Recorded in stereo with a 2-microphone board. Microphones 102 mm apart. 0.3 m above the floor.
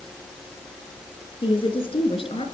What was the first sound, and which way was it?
A woman speaking, 55° left (ahead or behind).